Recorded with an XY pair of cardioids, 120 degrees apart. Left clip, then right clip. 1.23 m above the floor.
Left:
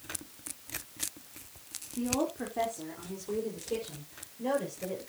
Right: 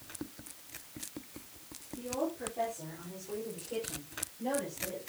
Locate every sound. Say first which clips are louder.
2.0 s a woman speaking: left 3 dB; 55° left, 3.5 m; by 5.0 s 45° left, 7 m